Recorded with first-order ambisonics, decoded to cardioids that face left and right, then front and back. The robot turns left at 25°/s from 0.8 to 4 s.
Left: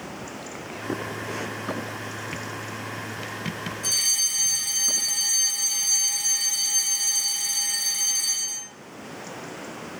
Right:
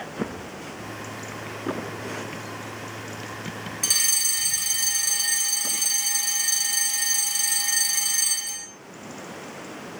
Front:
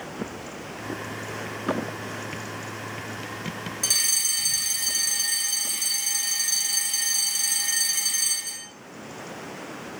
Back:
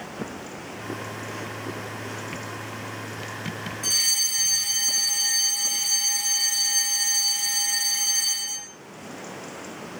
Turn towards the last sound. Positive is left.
turn(degrees=-65)